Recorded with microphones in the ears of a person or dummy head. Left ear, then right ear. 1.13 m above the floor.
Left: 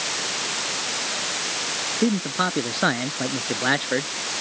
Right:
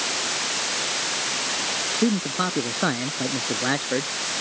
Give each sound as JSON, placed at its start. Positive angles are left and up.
{"t": 2.0, "sound": "a man speaking", "side_deg": 15}